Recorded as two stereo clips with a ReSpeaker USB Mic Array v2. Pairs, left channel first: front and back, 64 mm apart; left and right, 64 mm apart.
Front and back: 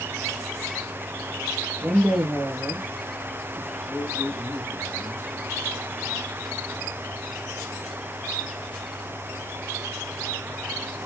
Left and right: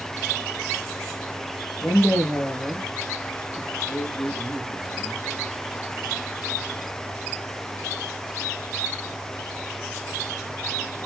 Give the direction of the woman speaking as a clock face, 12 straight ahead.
8 o'clock.